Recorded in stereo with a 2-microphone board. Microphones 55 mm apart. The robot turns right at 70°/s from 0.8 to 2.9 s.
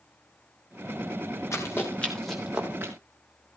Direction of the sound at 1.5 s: 60° left (ahead or behind).